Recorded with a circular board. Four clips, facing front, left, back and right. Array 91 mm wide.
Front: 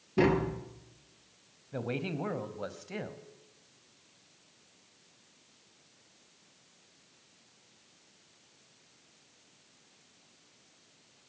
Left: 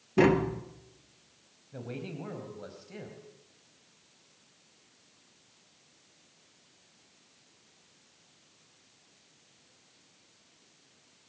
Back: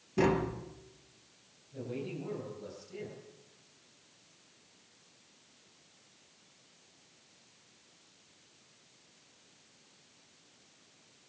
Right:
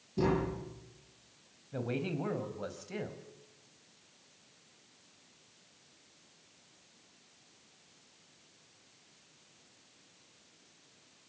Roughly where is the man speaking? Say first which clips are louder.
Right 4 dB, front 4 dB; ahead.